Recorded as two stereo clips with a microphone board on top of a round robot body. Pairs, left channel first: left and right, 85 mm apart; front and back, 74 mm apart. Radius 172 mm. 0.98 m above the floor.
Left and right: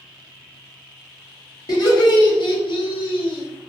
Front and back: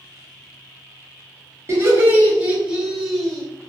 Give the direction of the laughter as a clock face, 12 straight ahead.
8 o'clock.